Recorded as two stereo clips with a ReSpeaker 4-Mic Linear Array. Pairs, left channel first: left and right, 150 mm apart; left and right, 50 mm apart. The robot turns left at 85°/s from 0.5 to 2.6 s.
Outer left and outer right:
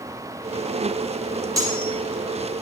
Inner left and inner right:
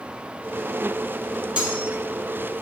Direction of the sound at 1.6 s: 25° right (ahead or behind).